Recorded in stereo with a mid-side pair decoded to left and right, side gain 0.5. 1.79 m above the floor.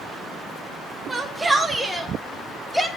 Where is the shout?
20° right, 3.5 m; by 2.9 s straight ahead, 5.5 m.